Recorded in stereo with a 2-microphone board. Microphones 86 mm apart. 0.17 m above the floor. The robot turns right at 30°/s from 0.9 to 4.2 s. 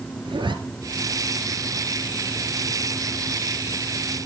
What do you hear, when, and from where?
0.2 s a zipper: 70° right (ahead or behind), 2.5 m